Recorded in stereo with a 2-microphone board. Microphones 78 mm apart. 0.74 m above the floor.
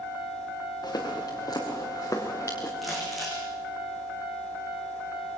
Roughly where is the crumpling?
Centre.